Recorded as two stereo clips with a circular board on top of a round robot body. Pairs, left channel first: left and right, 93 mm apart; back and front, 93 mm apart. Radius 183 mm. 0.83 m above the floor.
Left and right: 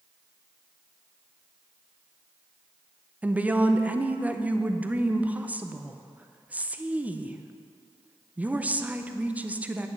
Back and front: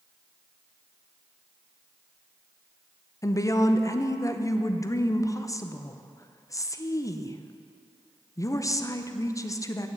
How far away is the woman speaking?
About 0.9 m.